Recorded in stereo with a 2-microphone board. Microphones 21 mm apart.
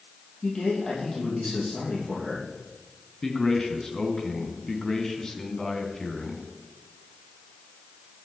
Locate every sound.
0.4 s a man speaking: 40° left (ahead or behind), 8 m
3.2 s a man speaking: 30° left (ahead or behind), 2.5 m